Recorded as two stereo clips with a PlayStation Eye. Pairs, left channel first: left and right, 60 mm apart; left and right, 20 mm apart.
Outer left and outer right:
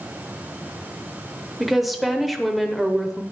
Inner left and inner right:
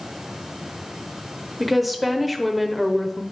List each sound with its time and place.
1.6 s a woman speaking: centre (ahead or behind), 0.9 m